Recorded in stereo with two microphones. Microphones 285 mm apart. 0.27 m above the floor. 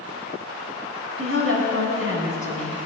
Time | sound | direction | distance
1.2 | a woman speaking | 50° right (ahead or behind) | 2.5 m